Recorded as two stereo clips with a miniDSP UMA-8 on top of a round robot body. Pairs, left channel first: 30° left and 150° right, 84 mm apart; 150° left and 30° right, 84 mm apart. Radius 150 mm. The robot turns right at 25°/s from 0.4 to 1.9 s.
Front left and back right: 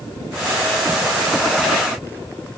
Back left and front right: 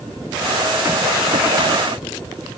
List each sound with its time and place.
Only background noise.